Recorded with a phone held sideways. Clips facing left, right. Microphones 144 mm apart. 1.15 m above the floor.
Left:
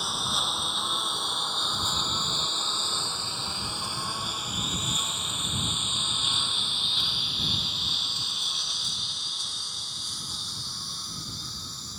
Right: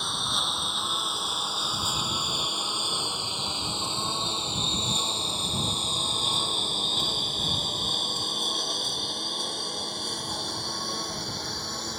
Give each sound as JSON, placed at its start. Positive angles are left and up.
{"t": 0.0, "sound": "a lawn mower", "side_deg": 5}